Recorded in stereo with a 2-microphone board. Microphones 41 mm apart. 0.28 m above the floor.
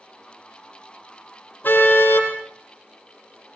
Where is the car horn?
50° left (ahead or behind), 6 m.